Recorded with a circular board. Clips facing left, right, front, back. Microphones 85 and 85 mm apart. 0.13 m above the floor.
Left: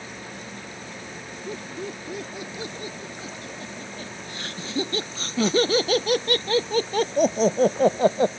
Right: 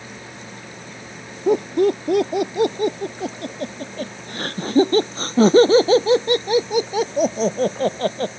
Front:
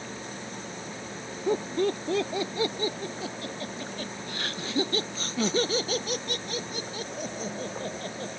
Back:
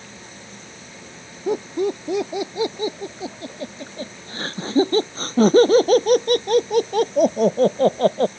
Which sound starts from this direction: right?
Laughter, at 1.5 s.